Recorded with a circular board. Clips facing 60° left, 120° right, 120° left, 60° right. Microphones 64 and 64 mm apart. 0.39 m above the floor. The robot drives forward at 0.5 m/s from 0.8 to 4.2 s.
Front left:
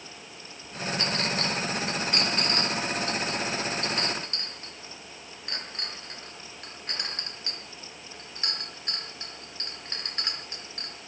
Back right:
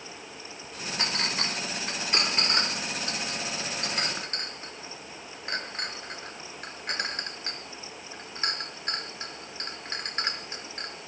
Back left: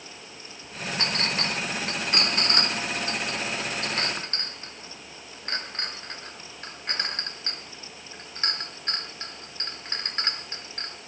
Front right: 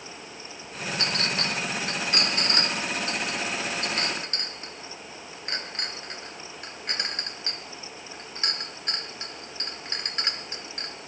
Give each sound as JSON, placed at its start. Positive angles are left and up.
{"t": 1.0, "sound": "a clink", "azimuth_deg": 170, "distance_m": 2.0}